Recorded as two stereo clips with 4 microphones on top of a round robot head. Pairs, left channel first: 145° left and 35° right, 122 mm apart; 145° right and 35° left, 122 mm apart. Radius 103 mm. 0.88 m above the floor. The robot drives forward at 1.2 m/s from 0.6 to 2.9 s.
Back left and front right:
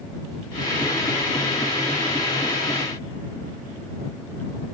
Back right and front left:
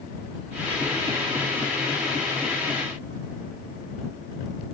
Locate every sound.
Only background noise.